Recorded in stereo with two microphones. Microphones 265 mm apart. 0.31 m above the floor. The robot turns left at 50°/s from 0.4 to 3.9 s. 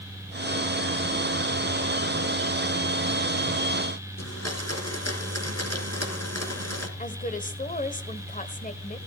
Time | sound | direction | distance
4.2 | a blender | 70° left (ahead or behind) | 3 m
7.0 | a woman speaking | 30° left (ahead or behind) | 1.6 m